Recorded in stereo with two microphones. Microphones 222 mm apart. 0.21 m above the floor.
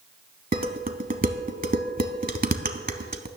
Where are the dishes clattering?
40° right (ahead or behind), 0.9 m.